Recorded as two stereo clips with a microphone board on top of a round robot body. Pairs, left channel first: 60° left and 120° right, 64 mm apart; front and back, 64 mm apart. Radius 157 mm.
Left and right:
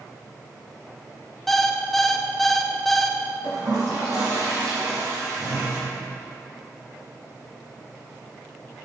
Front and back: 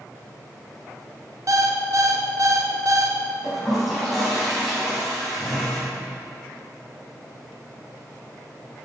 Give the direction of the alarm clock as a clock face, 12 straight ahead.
7 o'clock.